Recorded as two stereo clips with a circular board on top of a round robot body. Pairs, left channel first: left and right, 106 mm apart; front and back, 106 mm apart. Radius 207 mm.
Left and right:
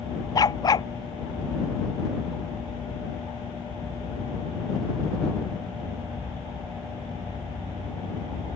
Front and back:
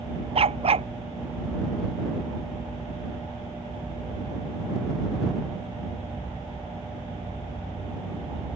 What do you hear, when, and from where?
0.3 s a dog barking: 145° left